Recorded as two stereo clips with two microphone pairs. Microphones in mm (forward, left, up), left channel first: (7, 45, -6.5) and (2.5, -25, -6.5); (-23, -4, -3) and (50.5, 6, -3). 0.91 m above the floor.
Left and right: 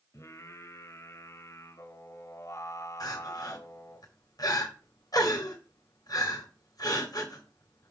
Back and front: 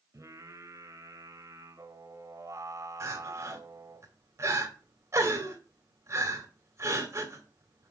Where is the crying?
55° left, 2 m.